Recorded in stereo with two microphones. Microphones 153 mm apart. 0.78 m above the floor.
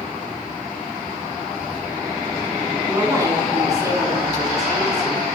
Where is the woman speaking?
25° right (ahead or behind), 7 m.